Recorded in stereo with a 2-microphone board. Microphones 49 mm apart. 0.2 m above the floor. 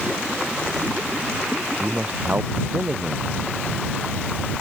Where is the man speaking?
25° right (ahead or behind).